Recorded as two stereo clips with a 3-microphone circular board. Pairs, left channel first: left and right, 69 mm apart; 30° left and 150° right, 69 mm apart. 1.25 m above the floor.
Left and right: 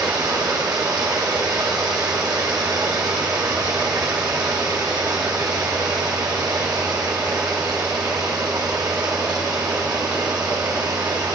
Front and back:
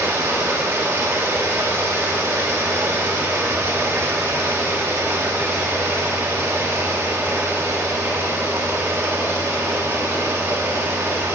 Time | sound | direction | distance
0.0 | running water | 100° right | 1.7 m